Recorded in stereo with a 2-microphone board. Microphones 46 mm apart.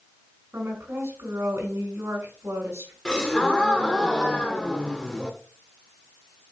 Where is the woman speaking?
65° right (ahead or behind), 5.5 m.